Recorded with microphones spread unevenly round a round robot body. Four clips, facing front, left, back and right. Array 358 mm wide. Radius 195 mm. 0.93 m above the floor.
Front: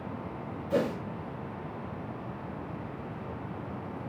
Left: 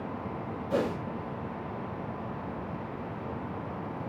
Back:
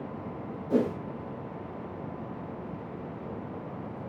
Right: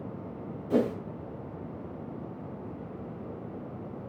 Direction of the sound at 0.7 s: 150° right.